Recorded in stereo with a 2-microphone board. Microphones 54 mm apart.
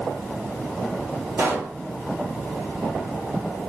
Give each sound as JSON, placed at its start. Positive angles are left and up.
{"t": 1.4, "sound": "a pop", "side_deg": -45, "distance_m": 1.3}